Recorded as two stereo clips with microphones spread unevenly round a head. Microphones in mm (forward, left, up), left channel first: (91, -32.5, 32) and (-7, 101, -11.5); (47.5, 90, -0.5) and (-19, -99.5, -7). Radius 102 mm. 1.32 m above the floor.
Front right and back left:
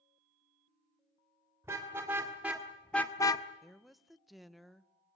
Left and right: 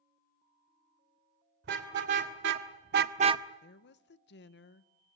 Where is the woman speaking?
35° left, 0.7 m.